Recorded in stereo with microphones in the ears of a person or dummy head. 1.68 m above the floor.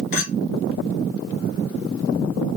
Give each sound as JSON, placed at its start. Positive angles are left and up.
{"t": 0.1, "sound": "a clink", "side_deg": 45, "distance_m": 1.1}